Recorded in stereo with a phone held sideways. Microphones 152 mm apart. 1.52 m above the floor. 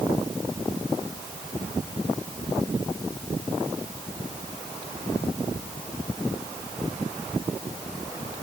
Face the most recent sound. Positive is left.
No sound to turn to.